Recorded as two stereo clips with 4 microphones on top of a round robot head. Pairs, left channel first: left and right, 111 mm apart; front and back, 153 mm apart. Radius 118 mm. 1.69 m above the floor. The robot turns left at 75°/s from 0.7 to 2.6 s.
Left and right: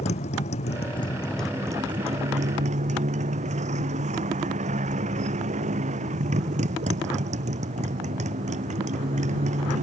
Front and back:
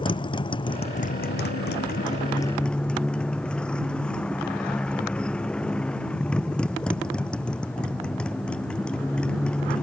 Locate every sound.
0.0 s a motorcycle: 55° left; by 9.8 s 85° right